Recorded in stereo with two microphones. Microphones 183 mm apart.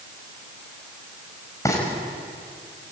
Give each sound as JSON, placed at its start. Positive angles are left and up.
{"t": 1.6, "sound": "frying", "side_deg": 15, "distance_m": 6.0}